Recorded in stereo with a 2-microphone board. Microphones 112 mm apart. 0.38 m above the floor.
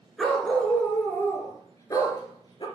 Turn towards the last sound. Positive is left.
turn(degrees=40)  # may be behind; listen again after turning